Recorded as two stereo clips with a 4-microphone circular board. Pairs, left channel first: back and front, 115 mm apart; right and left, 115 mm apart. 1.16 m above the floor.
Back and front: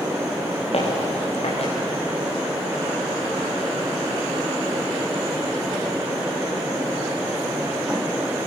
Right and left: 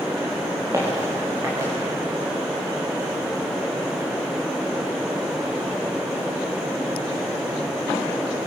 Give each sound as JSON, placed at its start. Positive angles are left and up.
{"t": 0.7, "sound": "footsteps", "azimuth_deg": 155, "distance_m": 7.5}